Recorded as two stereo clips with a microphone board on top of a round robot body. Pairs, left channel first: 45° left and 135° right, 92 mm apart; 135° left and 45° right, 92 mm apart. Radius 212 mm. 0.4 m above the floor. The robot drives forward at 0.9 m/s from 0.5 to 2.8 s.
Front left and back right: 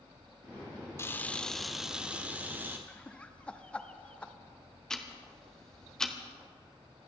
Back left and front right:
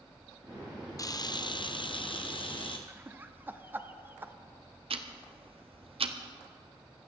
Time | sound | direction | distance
1.0 | a camera shutter | 100° left | 1.1 m
2.9 | laughter | 15° right | 1.4 m
4.9 | ticking | 40° right | 1.2 m